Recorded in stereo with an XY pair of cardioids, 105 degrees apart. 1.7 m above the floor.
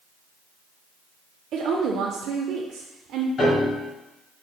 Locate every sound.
1.5 s a woman speaking: 65° right, 0.5 m
3.4 s a piano: 50° left, 2.0 m